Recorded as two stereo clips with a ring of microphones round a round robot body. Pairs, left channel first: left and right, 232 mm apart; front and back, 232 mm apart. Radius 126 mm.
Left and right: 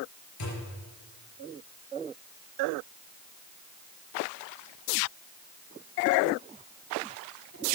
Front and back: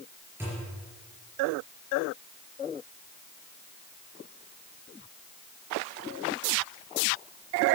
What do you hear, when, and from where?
0.4 s a thud: 100° left, 4.5 m